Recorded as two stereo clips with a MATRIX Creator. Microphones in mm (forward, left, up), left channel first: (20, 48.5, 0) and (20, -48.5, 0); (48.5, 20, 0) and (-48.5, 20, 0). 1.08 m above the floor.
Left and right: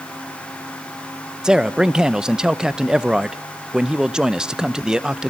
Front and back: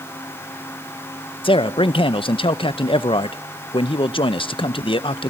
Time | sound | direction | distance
1.4 | a man speaking | 10° right | 0.7 m